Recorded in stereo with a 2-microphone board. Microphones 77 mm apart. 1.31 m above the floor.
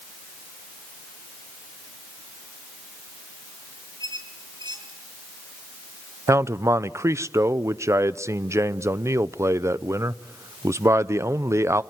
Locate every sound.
4.0 s a squeak: 70° right (ahead or behind), 4 m
6.3 s a man speaking: 40° right (ahead or behind), 0.6 m